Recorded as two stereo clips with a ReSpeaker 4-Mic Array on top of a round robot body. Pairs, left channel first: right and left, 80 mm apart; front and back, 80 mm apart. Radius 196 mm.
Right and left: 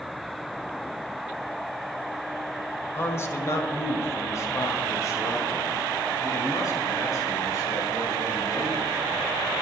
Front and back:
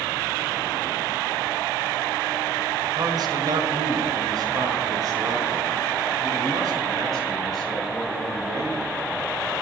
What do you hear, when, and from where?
3.0 s a man speaking: 150° right, 2 m; by 9.3 s 140° right, 7 m